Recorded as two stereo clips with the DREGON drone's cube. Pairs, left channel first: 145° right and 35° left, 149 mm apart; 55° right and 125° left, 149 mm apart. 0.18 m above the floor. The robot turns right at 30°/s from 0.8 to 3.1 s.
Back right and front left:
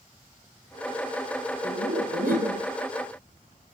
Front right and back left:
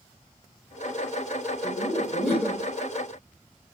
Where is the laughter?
Straight ahead, 5 m; by 2.7 s 30° left, 5 m.